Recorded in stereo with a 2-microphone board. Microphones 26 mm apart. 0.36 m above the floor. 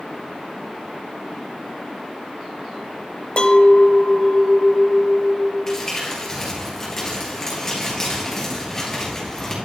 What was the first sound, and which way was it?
A clink, 45° left (ahead or behind).